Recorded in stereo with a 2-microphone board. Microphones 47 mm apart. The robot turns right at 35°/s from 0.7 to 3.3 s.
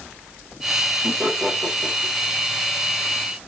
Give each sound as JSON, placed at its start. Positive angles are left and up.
{"t": 1.0, "sound": "laughter", "side_deg": -55, "distance_m": 1.6}